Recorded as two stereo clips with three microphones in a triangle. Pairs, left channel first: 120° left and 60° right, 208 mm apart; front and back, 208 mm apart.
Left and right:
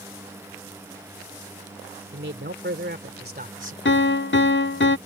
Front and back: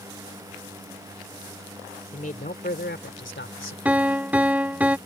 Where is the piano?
100° left.